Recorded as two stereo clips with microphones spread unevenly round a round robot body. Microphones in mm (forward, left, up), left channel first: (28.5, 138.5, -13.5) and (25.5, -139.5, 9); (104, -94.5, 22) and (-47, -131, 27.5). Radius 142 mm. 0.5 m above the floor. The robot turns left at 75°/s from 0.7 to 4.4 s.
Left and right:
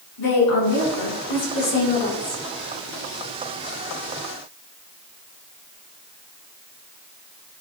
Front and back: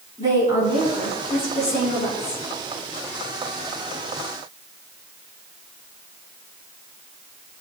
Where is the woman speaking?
125° left, 6.5 m; by 2.4 s 5° right, 6.5 m.